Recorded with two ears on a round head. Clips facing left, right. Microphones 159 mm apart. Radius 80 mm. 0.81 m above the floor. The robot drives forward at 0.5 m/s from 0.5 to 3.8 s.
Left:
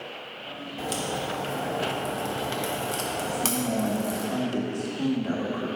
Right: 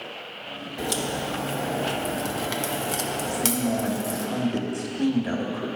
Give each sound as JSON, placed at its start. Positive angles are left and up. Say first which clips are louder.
{"t": 0.8, "sound": "a crack", "louder": "right 2 dB", "side_deg": -10, "distance_m": 1.0}
{"t": 3.3, "sound": "a man speaking", "louder": "right 3 dB", "side_deg": -25, "distance_m": 1.4}